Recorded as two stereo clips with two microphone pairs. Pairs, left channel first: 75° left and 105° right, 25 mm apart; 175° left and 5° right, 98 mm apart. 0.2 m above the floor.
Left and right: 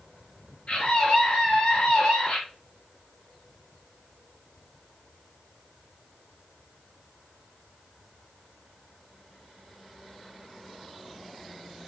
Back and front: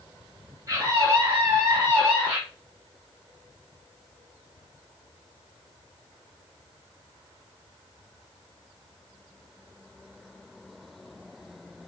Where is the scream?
50° left, 3.5 m; by 2.4 s 65° left, 3 m.